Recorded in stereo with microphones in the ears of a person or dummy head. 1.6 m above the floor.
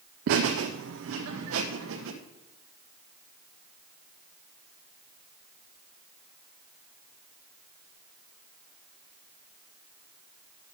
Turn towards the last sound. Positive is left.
turn(degrees=-75)  # may be behind; listen again after turning